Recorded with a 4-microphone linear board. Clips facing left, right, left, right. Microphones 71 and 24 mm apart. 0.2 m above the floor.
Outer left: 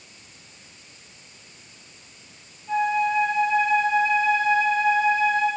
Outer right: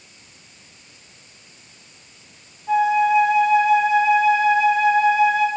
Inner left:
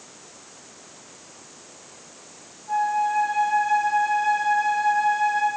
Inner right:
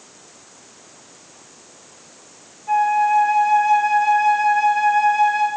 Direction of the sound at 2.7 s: 75° right (ahead or behind).